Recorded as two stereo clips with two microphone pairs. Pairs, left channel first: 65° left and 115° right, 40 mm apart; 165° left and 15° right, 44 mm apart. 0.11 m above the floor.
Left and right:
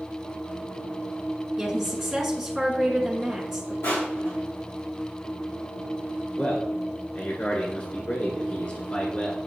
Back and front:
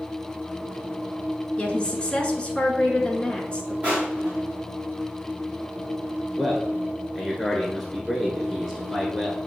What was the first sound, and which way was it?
A woman speaking, 175° right.